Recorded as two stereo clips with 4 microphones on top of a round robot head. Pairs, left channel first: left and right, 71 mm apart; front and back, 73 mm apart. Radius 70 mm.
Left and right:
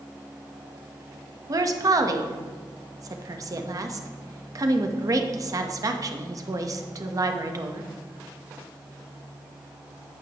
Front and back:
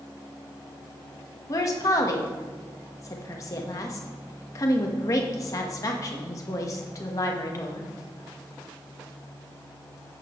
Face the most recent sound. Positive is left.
turn(degrees=-50)